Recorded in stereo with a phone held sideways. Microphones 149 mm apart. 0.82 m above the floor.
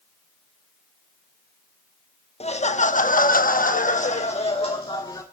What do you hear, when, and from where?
2.4 s laughter: 45° left (ahead or behind), 1.2 m; by 5.2 s 30° left (ahead or behind), 1.7 m